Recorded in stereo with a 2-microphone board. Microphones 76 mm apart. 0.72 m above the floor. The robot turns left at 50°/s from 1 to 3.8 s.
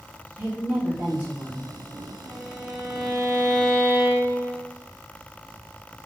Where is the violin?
125° right, 1.4 m; by 4.6 s 160° left, 1.4 m.